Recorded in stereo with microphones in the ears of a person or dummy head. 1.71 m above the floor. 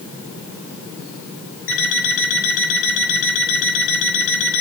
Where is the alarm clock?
65° left (ahead or behind), 6 m.